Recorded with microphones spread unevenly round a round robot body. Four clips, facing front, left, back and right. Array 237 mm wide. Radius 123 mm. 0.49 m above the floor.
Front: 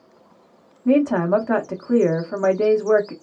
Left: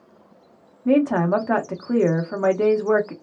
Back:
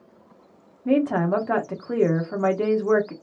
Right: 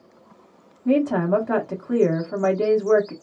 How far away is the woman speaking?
About 0.7 m.